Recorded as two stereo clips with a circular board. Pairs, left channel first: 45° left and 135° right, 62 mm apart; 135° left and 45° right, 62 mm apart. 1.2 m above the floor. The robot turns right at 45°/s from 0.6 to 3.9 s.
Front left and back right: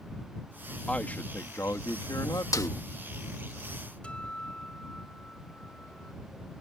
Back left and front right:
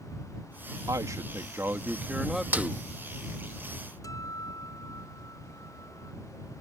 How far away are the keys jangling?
No keys jangling in this recording.